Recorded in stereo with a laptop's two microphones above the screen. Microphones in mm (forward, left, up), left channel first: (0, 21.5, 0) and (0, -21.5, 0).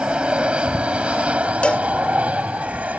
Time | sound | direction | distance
0.0 | an aircraft | 25° right (ahead or behind) | ?
1.6 | a cowbell | 25° left (ahead or behind) | ?